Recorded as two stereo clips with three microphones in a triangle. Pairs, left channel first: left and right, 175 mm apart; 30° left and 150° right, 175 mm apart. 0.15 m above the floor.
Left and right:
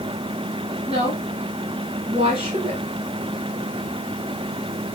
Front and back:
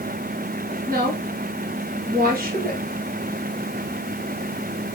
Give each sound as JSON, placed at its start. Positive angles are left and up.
{"t": 0.9, "sound": "a woman speaking", "azimuth_deg": -140, "distance_m": 2.5}